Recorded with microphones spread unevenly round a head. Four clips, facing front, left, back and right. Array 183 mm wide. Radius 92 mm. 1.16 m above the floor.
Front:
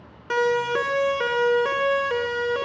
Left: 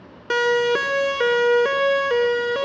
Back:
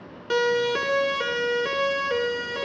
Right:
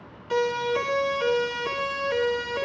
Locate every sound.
0.3 s a siren: 95° left, 3.5 m; by 2.6 s 80° left, 7 m